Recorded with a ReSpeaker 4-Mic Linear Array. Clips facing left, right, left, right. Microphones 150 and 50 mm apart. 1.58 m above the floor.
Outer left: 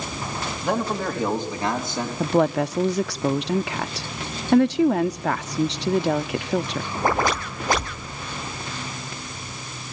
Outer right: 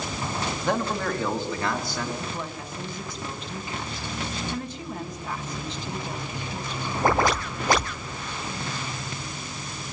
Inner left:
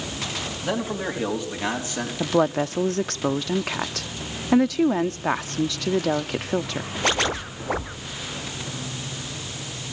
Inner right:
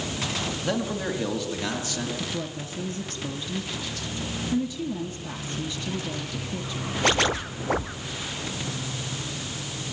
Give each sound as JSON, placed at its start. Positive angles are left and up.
{"t": 0.6, "sound": "a man speaking", "side_deg": 10, "distance_m": 3.5}
{"t": 2.2, "sound": "a woman speaking", "side_deg": 75, "distance_m": 0.6}